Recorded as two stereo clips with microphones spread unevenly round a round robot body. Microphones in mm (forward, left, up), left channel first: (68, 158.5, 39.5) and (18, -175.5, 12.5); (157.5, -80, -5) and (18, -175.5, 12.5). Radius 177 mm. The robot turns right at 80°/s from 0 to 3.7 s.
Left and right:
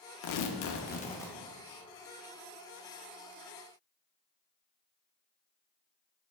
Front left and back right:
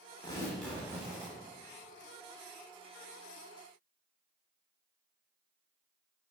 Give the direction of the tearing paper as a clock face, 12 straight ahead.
9 o'clock.